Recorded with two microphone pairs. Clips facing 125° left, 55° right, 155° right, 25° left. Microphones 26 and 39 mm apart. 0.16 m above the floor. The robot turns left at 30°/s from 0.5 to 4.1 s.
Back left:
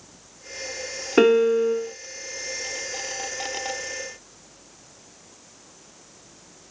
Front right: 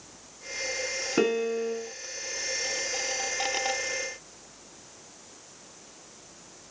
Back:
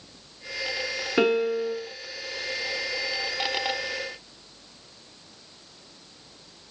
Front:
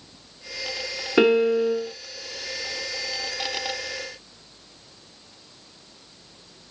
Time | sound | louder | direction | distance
1.2 | a piano | back left 10 dB, front 5 dB | 95° left | 0.5 m